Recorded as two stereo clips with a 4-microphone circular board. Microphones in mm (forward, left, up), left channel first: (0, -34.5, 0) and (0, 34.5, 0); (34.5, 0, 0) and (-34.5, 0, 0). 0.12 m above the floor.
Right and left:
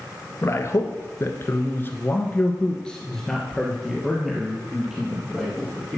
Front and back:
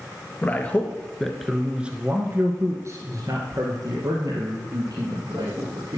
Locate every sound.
0.4 s a man speaking: 55° right, 1.9 m; by 6.0 s 170° left, 4 m